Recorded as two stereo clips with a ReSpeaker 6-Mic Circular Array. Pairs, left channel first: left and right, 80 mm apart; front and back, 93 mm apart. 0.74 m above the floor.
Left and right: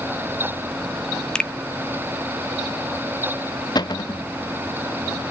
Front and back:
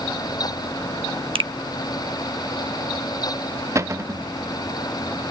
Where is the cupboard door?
120° left, 0.7 m.